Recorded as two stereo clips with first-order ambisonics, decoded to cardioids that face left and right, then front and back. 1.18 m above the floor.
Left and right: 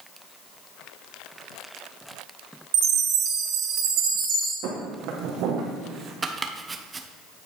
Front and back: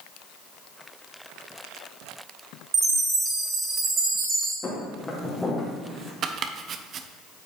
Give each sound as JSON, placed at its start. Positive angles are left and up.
{"t": 2.7, "sound": "a chime", "azimuth_deg": -120, "distance_m": 2.5}
{"t": 4.6, "sound": "footsteps", "azimuth_deg": -70, "distance_m": 3.0}
{"t": 6.2, "sound": "chopping", "azimuth_deg": -155, "distance_m": 0.5}